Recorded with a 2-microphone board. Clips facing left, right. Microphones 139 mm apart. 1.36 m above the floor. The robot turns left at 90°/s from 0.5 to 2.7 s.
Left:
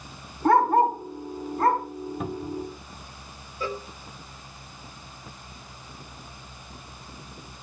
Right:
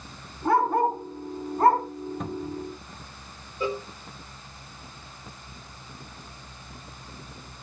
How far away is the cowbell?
About 1.7 m.